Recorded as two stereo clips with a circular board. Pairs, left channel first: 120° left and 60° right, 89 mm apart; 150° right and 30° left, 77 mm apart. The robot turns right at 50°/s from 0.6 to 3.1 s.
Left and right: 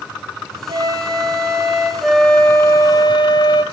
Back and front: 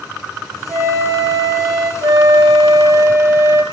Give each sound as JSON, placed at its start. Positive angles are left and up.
{"t": 0.7, "sound": "a flute", "azimuth_deg": -45, "distance_m": 4.5}
{"t": 2.0, "sound": "a flute", "azimuth_deg": 30, "distance_m": 1.5}